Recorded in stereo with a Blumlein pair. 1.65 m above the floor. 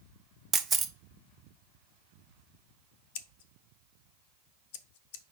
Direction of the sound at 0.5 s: 20° right.